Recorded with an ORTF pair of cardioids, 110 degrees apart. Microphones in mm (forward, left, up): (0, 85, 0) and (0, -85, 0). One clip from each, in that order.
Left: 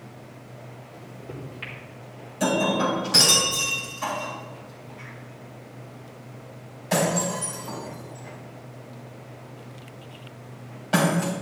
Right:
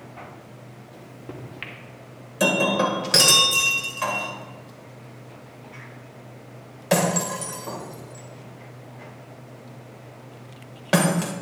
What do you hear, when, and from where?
0.9 s a microwave: 40° right, 2.5 m
2.4 s breaking glass: 55° right, 2.5 m